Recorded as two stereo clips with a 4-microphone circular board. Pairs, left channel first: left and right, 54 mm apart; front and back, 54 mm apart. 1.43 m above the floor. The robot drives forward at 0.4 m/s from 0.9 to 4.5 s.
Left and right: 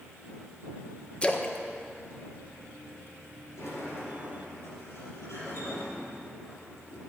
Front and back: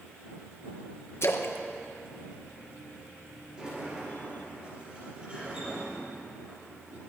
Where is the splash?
25° left, 0.8 m; by 3.1 s 100° left, 0.5 m.